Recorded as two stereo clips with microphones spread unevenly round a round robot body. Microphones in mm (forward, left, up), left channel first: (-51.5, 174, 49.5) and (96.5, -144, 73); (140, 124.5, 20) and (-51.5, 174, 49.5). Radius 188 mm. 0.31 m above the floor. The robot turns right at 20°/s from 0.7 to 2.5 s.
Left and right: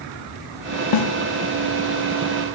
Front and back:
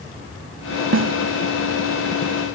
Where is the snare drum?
140° left, 0.8 m; by 1.2 s 145° left, 0.8 m.